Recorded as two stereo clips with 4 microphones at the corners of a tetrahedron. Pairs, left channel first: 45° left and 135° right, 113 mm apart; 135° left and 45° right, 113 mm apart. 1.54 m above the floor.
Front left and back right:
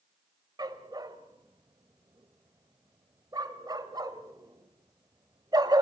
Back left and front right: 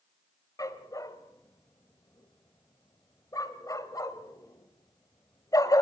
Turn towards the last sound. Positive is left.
turn(degrees=-175)